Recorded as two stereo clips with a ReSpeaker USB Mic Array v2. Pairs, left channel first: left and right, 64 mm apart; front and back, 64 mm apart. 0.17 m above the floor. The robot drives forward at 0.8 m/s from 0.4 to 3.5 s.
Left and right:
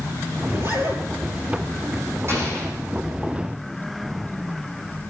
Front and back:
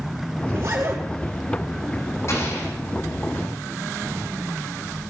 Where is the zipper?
135° right, 2.5 m; by 1.0 s 140° right, 3 m.